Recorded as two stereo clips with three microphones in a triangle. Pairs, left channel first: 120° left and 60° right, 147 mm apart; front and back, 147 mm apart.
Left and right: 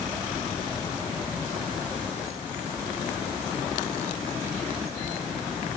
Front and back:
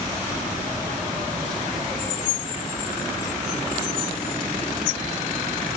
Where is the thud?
I don't hear a thud.